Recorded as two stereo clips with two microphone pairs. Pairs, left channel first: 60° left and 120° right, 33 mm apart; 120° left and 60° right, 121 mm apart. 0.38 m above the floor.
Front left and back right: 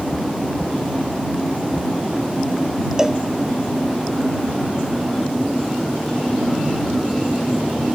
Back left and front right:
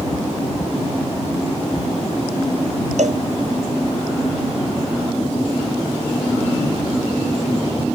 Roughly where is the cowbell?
Ahead right.